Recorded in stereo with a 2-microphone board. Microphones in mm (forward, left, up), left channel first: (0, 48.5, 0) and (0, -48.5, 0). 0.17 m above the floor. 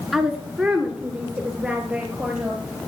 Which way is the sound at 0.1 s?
5° right (ahead or behind).